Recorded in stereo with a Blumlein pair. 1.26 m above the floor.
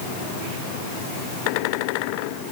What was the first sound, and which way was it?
Only background noise.